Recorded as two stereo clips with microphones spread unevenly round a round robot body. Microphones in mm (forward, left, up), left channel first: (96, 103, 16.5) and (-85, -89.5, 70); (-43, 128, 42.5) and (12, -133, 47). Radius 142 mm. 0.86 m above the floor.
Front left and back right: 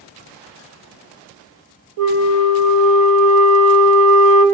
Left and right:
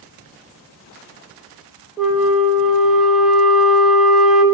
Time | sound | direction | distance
2.0 | a flute | 165° right | 1.0 m